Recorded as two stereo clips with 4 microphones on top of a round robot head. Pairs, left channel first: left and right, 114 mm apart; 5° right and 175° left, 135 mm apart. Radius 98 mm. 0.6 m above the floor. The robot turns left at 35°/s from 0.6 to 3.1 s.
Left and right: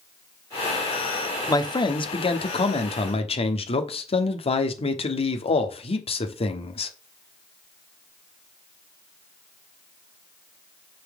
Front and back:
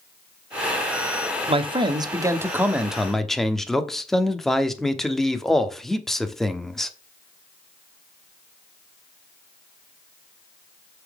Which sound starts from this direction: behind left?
A man speaking, at 1.5 s.